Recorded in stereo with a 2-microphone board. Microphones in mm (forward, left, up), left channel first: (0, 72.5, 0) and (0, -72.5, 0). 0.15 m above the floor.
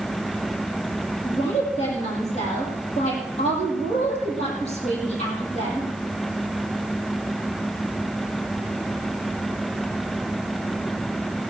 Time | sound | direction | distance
1.2 | a woman speaking | 55° left (ahead or behind) | 6 m